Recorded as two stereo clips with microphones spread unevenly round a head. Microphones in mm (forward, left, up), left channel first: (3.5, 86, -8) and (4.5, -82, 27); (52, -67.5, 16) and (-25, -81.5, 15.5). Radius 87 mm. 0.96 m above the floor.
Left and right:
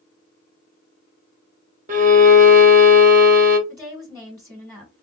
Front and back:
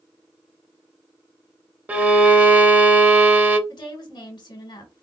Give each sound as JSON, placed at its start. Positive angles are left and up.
{"t": 1.9, "sound": "a violin", "azimuth_deg": -105, "distance_m": 0.7}
{"t": 3.7, "sound": "a woman speaking", "azimuth_deg": 10, "distance_m": 1.2}